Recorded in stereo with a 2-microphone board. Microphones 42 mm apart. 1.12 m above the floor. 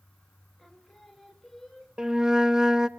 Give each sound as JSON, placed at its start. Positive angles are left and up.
{"t": 0.6, "sound": "singing", "side_deg": 5, "distance_m": 2.0}
{"t": 2.0, "sound": "a flute", "side_deg": -20, "distance_m": 0.6}